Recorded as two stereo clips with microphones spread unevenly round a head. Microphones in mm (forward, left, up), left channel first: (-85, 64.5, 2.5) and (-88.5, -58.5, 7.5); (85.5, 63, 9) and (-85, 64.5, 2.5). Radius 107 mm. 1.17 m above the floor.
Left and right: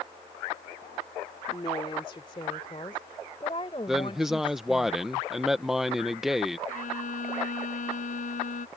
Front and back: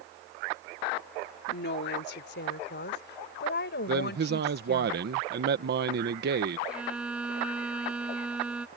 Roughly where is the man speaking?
Behind.